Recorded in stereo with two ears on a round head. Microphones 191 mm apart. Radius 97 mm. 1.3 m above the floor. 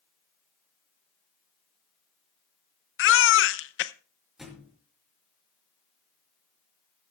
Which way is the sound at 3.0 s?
65° left (ahead or behind).